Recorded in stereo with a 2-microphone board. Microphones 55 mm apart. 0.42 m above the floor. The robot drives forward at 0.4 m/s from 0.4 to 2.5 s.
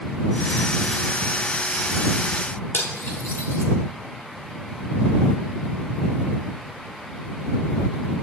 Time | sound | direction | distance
2.7 | cutlery clinking | 50° left (ahead or behind) | 0.9 m